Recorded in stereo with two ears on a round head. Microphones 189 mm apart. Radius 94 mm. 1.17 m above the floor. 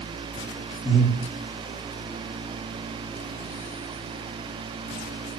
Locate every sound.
0.8 s breathing: 20° left (ahead or behind), 0.6 m